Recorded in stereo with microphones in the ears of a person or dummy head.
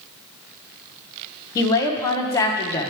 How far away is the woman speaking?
About 1.1 m.